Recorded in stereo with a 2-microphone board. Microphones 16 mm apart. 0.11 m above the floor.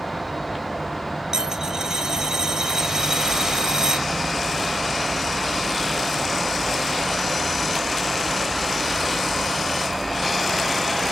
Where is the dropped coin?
45° right (ahead or behind), 1.0 m.